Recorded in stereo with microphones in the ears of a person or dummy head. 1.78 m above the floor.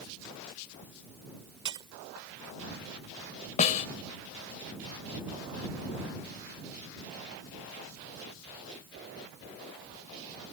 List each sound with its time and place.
1.6 s breaking glass: 20° right (ahead or behind)
3.6 s a snare drum: 35° left (ahead or behind)